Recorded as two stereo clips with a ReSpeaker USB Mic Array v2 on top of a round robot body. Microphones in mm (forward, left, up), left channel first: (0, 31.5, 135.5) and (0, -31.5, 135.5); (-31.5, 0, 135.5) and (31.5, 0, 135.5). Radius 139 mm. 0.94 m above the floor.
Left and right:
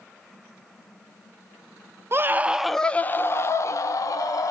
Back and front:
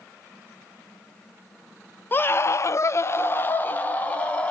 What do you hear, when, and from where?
2.1 s a scream: 130° right, 0.5 m; by 4.5 s 110° left, 1.1 m